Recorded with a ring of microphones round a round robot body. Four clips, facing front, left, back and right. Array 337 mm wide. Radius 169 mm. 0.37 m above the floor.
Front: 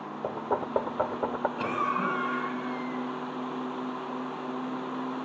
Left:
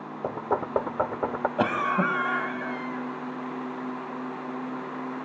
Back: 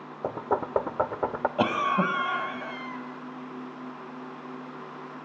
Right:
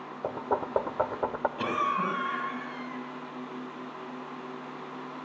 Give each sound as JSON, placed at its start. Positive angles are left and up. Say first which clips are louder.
{"t": 0.2, "sound": "knocking", "louder": "left 2 dB, back 2 dB", "azimuth_deg": 130, "distance_m": 1.0}
{"t": 1.6, "sound": "a cough", "louder": "left 5 dB, back 7 dB", "azimuth_deg": 135, "distance_m": 2.5}